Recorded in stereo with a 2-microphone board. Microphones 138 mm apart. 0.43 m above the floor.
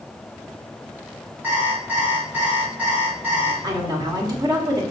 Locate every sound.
1.4 s an alarm clock: 15° right (ahead or behind), 2.5 m
3.6 s a woman speaking: 30° right (ahead or behind), 1.3 m